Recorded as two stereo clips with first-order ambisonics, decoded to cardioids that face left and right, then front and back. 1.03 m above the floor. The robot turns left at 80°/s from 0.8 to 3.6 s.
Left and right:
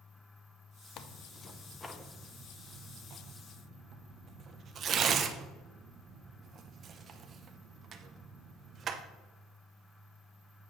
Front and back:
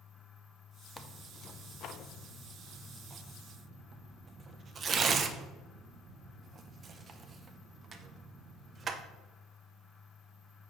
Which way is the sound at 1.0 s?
80° left.